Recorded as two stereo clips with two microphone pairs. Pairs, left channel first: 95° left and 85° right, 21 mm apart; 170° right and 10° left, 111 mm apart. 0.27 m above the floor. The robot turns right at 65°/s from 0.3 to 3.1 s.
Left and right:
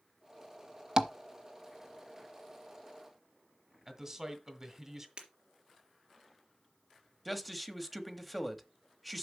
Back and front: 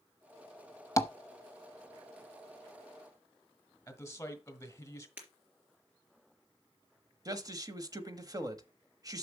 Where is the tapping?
120° right, 0.7 m; by 1.1 s 110° right, 0.7 m.